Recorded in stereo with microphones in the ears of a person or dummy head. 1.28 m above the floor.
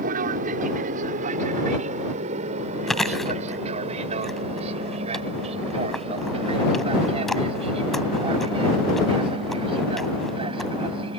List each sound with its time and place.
0.0 s an aircraft: 45° right (ahead or behind); by 11.2 s 25° right (ahead or behind)
2.9 s chewing: centre (ahead or behind)